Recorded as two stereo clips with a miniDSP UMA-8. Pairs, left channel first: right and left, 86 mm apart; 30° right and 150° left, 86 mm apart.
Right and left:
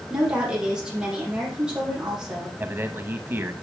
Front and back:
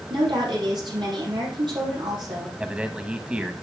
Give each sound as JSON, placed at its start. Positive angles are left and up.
{"t": 0.1, "sound": "a woman speaking", "azimuth_deg": 170, "distance_m": 6.0}
{"t": 2.6, "sound": "a man speaking", "azimuth_deg": 90, "distance_m": 1.0}